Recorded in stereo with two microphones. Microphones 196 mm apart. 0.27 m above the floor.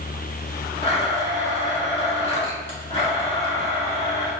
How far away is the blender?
About 1.7 m.